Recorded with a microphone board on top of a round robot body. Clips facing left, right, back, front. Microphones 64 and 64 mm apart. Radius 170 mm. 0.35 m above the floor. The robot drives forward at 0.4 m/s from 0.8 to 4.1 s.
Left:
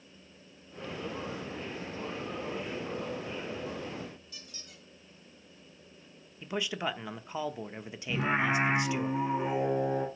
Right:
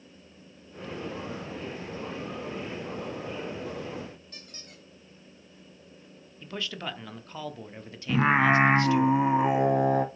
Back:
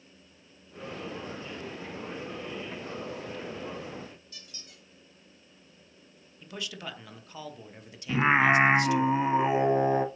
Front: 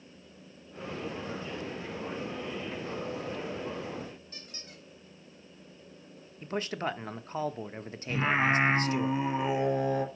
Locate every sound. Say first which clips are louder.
4.3 s a squeak: right 3 dB, front 4 dB; 50° right, 1.5 m
6.4 s a man speaking: left 3 dB, front 7 dB; 25° left, 0.9 m
8.1 s singing: right 7 dB, back 5 dB; 115° right, 0.8 m